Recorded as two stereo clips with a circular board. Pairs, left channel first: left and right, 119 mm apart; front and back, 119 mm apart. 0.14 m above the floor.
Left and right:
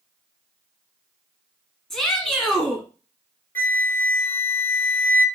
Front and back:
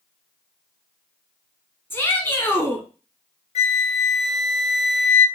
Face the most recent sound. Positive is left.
turn(degrees=15)